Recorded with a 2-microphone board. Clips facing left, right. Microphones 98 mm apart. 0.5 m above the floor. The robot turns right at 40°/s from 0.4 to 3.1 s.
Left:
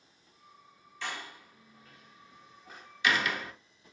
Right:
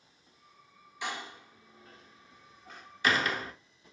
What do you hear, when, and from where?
1.0 s a door slam: 15° right (ahead or behind), 0.7 m; by 3.5 s 35° right (ahead or behind), 0.7 m
2.7 s a pop: 5° left (ahead or behind), 1.8 m; by 3.0 s 5° right (ahead or behind), 1.8 m